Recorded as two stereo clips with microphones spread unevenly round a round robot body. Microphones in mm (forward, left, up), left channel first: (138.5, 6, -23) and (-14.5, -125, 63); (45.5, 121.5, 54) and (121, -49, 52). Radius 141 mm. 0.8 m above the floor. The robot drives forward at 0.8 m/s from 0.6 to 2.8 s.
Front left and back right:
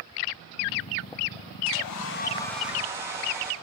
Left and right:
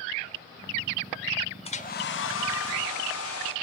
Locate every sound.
1.6 s a hair dryer: 55° left, 0.5 m; by 3.5 s 150° left, 0.8 m